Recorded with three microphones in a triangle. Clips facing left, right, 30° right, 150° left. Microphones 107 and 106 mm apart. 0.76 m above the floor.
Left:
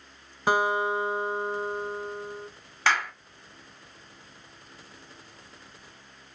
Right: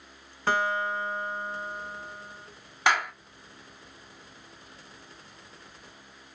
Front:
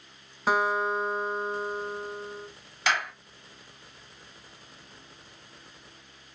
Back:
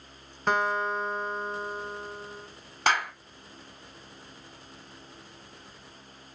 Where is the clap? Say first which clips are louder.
Right 1 dB, back 2 dB; 165° right, 1.9 m.